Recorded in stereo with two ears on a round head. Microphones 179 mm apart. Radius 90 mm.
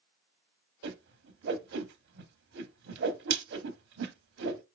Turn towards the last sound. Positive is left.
turn(degrees=-60)  # may be behind; listen again after turning